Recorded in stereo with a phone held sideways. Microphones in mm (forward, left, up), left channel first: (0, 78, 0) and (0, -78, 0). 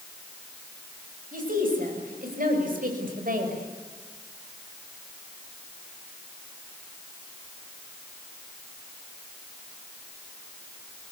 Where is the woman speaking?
60° right (ahead or behind), 6.5 m; by 3.7 s 65° right (ahead or behind), 5 m.